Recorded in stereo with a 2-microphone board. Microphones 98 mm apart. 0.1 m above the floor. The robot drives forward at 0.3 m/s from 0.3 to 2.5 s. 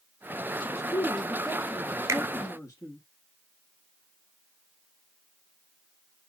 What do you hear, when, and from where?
0.6 s a man speaking: 40° left (ahead or behind), 1.8 m; by 3.0 s 30° left (ahead or behind), 2 m
2.1 s a finger snap: 30° right (ahead or behind), 1.0 m